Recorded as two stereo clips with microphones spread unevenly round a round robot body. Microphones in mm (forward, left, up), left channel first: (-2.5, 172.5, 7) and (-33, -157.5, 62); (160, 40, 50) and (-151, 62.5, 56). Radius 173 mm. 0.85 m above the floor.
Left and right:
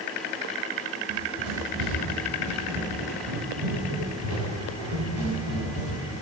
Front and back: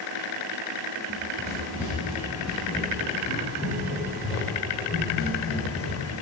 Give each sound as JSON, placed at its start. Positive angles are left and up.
{"t": 1.1, "sound": "running footsteps", "azimuth_deg": -105, "distance_m": 9.5}